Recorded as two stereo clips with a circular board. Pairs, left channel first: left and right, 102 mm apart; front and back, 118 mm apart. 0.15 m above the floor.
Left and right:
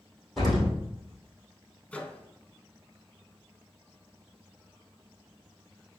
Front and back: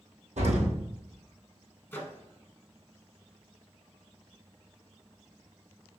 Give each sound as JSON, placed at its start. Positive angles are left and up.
{"t": 0.4, "sound": "an explosion", "azimuth_deg": 180, "distance_m": 2.0}
{"t": 1.9, "sound": "a microwave", "azimuth_deg": 35, "distance_m": 0.9}